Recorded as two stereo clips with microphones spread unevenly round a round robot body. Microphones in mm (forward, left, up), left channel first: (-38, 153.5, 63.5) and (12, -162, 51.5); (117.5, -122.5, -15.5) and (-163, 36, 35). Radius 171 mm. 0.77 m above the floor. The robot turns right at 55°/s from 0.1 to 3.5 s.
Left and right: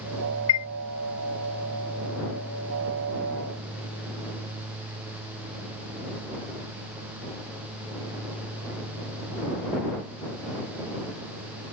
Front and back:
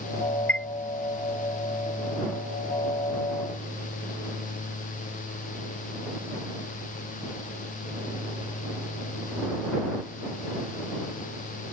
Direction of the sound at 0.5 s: 55° left.